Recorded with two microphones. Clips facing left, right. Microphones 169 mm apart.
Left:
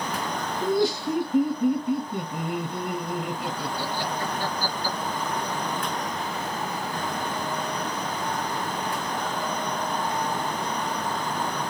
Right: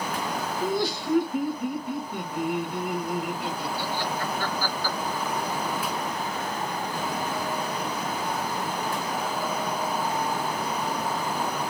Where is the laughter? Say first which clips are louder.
Left 5 dB; 25° left (ahead or behind), 1.4 m.